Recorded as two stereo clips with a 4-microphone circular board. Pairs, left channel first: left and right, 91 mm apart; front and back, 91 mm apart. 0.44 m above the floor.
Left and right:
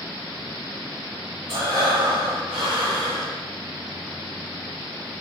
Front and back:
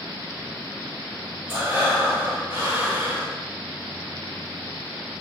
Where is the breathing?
110° right, 1.1 m.